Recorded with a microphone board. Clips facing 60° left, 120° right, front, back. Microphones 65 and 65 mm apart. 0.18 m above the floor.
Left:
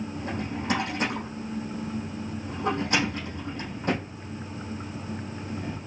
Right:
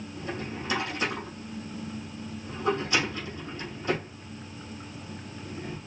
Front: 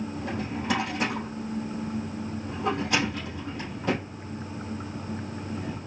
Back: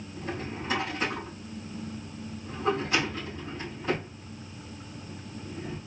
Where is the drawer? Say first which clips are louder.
Even, front 4 dB; 20° left, 3.5 m.